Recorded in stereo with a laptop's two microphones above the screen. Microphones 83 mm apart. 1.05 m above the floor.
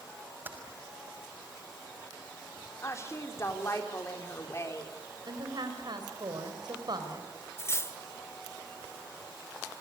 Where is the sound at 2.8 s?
35° left (ahead or behind), 3 m.